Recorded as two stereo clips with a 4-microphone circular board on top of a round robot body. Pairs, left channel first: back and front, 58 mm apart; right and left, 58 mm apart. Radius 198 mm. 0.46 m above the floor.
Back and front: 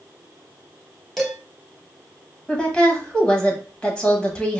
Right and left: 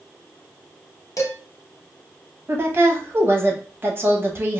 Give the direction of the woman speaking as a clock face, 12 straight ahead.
8 o'clock.